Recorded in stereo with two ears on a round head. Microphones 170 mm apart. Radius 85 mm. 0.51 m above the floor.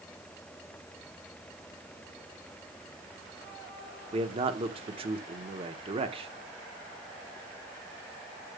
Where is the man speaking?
30° right (ahead or behind), 1.1 m.